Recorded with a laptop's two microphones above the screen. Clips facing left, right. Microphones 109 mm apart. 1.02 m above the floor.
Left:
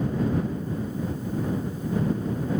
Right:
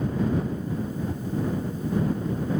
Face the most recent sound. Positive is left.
No sound to turn to.